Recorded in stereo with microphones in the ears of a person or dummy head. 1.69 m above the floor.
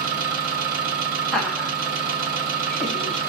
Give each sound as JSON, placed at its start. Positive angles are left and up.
{"t": 0.0, "sound": "an engine running", "side_deg": -45, "distance_m": 1.2}
{"t": 1.3, "sound": "laughter", "side_deg": 5, "distance_m": 1.1}